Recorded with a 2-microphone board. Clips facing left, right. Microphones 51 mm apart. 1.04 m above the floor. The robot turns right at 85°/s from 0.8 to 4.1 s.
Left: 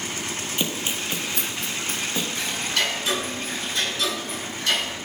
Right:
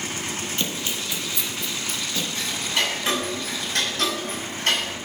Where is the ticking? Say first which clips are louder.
Right 2 dB; 15° left (ahead or behind), 6 m; by 4.9 s 50° right (ahead or behind), 6 m.